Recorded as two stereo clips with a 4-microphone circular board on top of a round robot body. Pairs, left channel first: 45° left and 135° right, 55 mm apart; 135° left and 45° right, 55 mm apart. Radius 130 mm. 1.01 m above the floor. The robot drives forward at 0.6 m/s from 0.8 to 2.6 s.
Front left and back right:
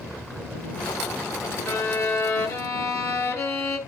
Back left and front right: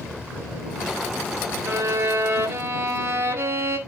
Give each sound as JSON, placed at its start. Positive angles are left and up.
{"t": 1.7, "sound": "a violin", "azimuth_deg": 5, "distance_m": 2.0}